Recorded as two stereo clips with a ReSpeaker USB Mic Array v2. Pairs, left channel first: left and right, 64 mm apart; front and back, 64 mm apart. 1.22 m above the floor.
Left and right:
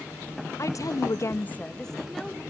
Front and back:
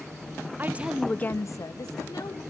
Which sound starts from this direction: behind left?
A woman speaking, at 0.6 s.